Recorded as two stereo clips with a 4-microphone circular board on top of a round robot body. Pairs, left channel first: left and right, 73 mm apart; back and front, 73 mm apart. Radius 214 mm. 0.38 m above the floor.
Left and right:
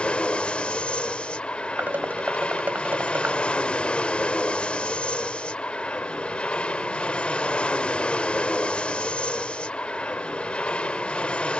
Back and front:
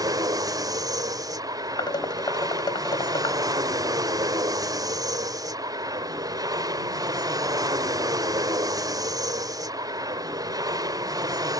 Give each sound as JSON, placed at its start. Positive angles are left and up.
{"t": 0.0, "sound": "an aircraft", "azimuth_deg": 20}
{"t": 1.8, "sound": "dishes clattering", "azimuth_deg": -155}